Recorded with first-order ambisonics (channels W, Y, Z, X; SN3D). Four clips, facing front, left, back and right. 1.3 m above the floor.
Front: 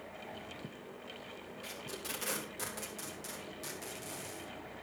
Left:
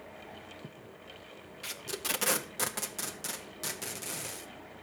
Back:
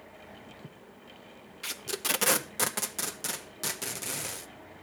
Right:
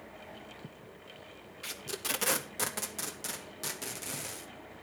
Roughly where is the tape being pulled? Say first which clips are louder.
Left 1 dB, back 11 dB; behind.